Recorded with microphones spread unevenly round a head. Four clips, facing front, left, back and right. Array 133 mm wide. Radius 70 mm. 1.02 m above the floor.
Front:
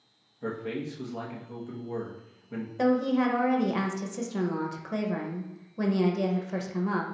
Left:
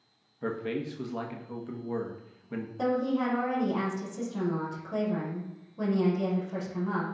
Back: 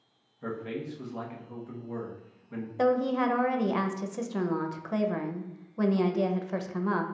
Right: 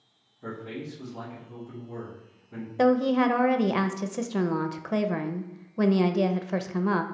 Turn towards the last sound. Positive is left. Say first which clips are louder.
# right 7 dB, front 1 dB
turn(degrees=-70)